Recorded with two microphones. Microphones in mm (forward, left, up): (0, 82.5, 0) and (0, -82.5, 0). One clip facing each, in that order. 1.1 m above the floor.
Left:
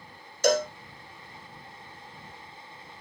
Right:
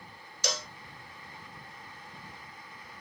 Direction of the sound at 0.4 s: 50° left (ahead or behind).